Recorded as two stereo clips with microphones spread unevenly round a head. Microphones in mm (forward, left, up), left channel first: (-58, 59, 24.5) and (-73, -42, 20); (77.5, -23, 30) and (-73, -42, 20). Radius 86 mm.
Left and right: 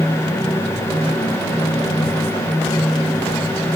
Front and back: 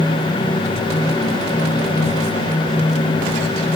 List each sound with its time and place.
Only background noise.